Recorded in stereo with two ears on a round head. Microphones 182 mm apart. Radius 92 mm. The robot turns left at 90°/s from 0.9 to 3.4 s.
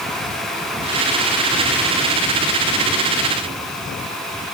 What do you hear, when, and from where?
Only background noise.